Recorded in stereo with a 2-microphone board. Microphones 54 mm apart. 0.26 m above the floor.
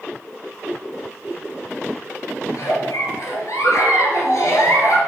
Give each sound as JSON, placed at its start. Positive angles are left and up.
{"t": 2.5, "sound": "a giggle", "side_deg": 70, "distance_m": 3.0}